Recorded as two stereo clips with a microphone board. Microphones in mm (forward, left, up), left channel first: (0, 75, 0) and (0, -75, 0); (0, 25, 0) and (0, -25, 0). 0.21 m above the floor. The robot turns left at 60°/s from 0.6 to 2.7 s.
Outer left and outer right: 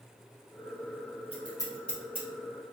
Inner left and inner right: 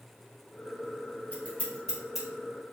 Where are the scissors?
40° left (ahead or behind), 1.7 m; by 2.3 s 15° right (ahead or behind), 1.7 m.